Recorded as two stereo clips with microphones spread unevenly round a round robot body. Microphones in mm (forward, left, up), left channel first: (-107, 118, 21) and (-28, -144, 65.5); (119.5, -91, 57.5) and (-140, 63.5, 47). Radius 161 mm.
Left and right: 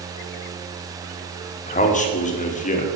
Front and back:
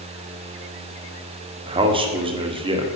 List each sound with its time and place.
1.7 s a man speaking: 90° left, 1.4 m